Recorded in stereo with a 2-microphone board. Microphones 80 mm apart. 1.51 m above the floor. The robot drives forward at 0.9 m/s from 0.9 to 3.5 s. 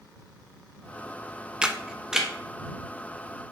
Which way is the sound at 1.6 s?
15° right (ahead or behind).